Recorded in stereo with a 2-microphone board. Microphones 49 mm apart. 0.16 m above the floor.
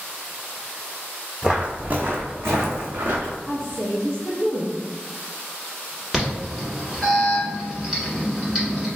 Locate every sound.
1.4 s footsteps: 15° right (ahead or behind), 0.5 m; by 3.4 s 85° right, 1.0 m
3.5 s a woman speaking: 25° right (ahead or behind), 1.2 m
6.1 s an alarm: 10° right (ahead or behind), 1.2 m